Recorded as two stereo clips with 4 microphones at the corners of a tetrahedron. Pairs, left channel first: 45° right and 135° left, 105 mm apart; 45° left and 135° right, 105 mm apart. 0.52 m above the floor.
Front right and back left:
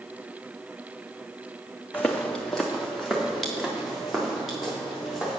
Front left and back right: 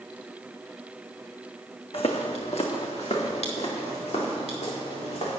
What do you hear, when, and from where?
1.9 s footsteps: 35° left, 1.4 m; by 5.4 s 50° left, 6 m